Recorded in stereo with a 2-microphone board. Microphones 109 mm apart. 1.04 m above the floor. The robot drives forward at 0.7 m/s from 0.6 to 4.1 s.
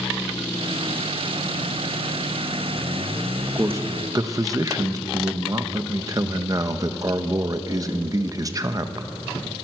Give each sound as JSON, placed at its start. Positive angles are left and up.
{"t": 3.5, "sound": "a man speaking", "side_deg": -25, "distance_m": 1.4}